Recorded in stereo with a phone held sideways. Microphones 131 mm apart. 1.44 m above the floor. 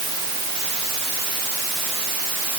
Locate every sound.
Only background noise.